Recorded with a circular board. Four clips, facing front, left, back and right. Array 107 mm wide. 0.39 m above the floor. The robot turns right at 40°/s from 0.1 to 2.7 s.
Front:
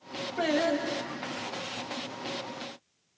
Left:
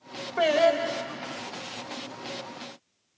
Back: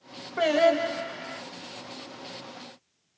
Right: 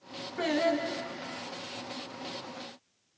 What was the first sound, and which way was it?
Singing, 120° left.